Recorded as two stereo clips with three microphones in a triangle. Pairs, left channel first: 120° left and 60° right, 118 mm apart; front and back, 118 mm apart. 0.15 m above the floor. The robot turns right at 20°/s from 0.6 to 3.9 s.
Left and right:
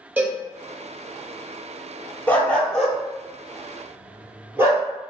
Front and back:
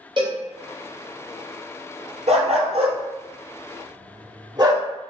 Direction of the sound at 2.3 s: 165° right.